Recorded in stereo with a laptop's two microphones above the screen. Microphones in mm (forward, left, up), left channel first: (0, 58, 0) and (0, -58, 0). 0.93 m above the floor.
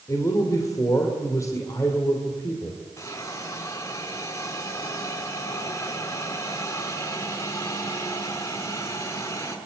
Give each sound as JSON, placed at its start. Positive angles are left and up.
{"t": 0.1, "sound": "a man speaking", "side_deg": 25, "distance_m": 2.5}
{"t": 3.0, "sound": "a hiss", "side_deg": 30, "distance_m": 6.0}